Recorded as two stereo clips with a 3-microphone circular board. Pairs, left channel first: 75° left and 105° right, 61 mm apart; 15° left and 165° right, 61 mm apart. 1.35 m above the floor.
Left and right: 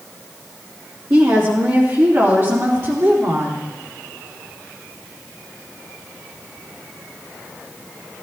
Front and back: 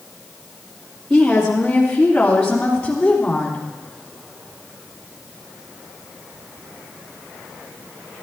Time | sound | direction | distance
1.1 | a woman speaking | 70° right | 2.5 m